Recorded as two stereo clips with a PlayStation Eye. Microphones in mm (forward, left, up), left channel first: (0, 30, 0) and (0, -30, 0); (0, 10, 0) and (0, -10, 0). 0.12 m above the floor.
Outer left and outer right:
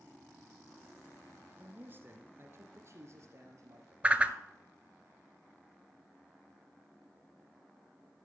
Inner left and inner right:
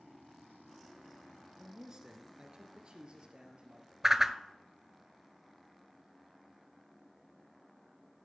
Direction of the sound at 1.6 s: 25° right (ahead or behind).